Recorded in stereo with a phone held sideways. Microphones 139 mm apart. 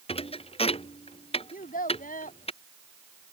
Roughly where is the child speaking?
Left.